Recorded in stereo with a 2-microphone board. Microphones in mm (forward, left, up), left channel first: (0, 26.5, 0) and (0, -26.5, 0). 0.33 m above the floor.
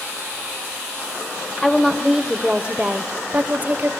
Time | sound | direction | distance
1.6 | a woman speaking | 10° left (ahead or behind) | 0.9 m